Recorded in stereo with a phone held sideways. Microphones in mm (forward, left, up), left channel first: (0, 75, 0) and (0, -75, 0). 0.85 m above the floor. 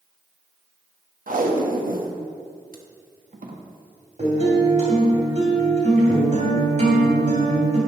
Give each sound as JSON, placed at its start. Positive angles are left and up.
{"t": 1.3, "sound": "tape being pulled", "side_deg": -65, "distance_m": 1.0}
{"t": 4.2, "sound": "a guitar", "side_deg": -50, "distance_m": 3.5}